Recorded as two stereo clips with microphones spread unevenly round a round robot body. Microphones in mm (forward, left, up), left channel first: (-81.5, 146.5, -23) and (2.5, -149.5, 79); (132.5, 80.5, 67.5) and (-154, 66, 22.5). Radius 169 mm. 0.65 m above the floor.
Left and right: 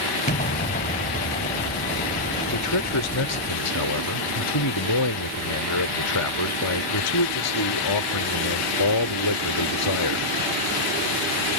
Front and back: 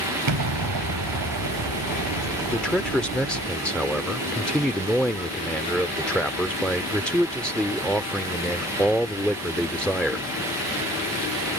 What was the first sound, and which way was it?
An explosion, 170° left.